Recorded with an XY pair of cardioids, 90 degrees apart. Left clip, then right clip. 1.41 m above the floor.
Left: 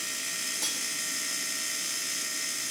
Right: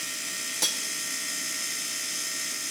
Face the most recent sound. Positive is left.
turn(degrees=-55)